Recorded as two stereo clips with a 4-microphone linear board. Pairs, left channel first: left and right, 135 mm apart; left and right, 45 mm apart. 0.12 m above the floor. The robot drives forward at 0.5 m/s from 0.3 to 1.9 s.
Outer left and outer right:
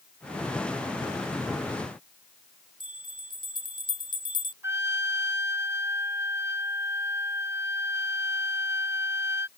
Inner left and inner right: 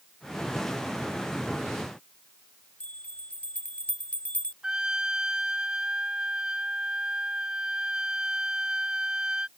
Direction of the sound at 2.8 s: 35° left (ahead or behind).